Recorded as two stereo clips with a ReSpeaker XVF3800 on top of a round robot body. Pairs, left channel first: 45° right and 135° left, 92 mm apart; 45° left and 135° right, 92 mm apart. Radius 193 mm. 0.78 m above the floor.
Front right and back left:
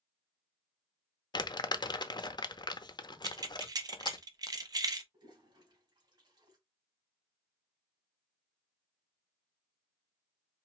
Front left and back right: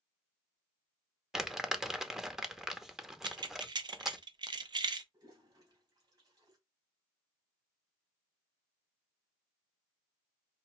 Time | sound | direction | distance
1.3 | crumpling | 50° right | 0.9 m
3.2 | keys jangling | 175° right | 0.6 m
5.1 | a toilet flushing | 175° left | 2.5 m